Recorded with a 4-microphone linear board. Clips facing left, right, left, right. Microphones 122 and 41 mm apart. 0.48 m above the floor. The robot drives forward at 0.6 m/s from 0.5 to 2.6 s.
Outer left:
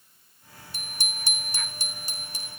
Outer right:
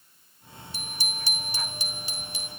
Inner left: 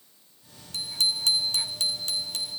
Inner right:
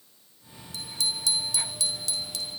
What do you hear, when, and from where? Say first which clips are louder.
0.7 s a bicycle bell: outer right 1 dB, inner left 4 dB; 50° left (ahead or behind), 4 m; by 2.5 s 40° left (ahead or behind), 4.5 m